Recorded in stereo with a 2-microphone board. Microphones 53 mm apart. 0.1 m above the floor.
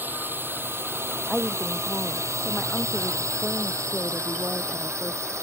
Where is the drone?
40° right (ahead or behind); by 5.4 s 60° right (ahead or behind).